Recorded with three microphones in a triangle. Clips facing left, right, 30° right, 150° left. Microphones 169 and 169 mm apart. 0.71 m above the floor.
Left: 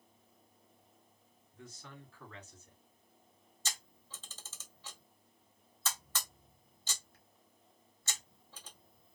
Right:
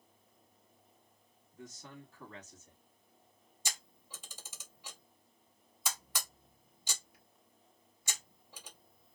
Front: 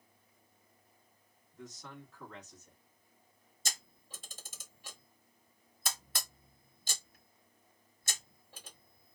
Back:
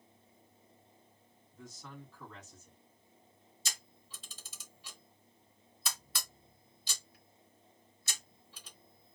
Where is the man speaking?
120° right, 1.6 m.